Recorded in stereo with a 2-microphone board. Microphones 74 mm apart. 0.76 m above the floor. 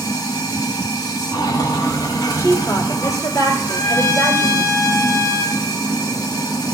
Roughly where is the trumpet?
Left.